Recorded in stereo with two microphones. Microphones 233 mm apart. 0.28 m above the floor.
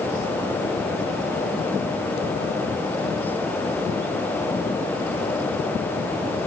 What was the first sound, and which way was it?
Only background noise.